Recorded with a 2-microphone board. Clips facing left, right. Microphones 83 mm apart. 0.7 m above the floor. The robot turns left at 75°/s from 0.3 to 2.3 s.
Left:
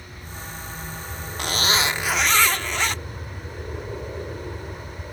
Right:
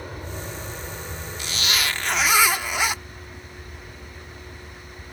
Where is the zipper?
60° left; by 3.0 s 10° right.